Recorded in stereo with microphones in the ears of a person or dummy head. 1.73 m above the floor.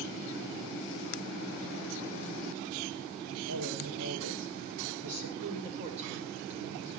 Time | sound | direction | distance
3.5 | a woman speaking | 90° right | 7.5 m
5.4 | a woman speaking | 30° right (ahead or behind) | 6 m